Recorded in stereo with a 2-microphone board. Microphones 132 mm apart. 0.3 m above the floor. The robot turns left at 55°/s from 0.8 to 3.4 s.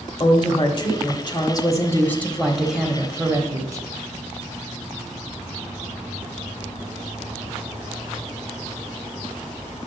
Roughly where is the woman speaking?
Left.